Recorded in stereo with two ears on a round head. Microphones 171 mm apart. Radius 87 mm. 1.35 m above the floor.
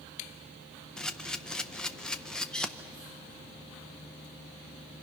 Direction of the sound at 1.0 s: 5° left (ahead or behind).